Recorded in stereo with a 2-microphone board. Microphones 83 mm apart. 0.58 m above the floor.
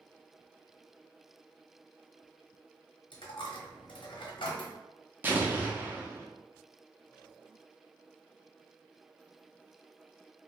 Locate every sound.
3.1 s a dropped coin: 70° left (ahead or behind), 0.7 m
5.2 s an explosion: 25° right (ahead or behind), 0.6 m